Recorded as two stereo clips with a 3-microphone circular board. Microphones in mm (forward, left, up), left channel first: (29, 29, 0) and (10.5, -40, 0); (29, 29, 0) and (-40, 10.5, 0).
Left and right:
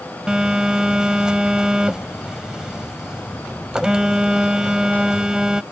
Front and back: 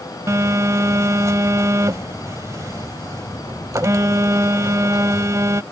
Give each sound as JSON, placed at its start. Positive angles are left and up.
{"t": 0.3, "sound": "a phone buzzing", "azimuth_deg": 180}